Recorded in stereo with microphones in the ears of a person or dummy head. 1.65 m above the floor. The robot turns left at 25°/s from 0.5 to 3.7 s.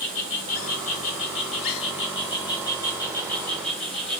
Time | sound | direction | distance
0.0 | an insect | 80° left | 1.0 m